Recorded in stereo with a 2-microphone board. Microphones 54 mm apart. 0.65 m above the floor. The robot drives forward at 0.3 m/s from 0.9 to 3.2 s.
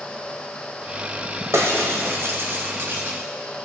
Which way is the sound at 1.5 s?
70° right (ahead or behind).